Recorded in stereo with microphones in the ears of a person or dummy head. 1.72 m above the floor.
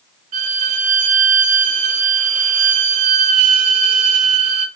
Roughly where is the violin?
Right.